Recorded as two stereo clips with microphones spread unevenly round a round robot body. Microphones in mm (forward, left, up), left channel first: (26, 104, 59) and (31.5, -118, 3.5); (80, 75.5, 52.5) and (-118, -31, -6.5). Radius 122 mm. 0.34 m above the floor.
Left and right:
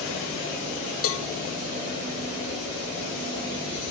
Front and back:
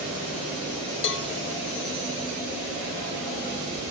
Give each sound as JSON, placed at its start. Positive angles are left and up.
{"t": 1.0, "sound": "a cowbell", "azimuth_deg": 65, "distance_m": 0.8}